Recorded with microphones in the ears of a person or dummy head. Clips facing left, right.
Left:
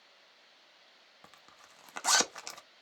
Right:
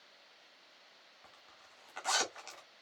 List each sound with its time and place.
1.2 s a zipper: 70° left (ahead or behind), 1.0 m